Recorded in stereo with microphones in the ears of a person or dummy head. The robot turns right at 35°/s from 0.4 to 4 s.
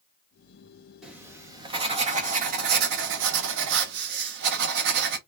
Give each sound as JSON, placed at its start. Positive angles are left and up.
{"t": 1.0, "sound": "writing", "azimuth_deg": -175, "distance_m": 0.8}